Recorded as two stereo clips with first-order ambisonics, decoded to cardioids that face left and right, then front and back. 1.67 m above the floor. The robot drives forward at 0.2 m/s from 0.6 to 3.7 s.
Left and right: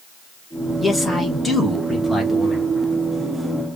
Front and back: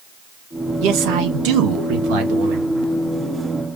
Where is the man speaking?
175° left, 1.6 m.